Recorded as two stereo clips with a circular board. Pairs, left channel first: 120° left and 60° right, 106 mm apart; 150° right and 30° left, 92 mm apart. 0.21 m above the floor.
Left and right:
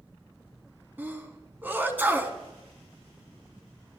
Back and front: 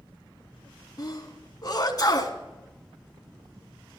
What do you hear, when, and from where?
1.0 s a sneeze: 125° right, 1.8 m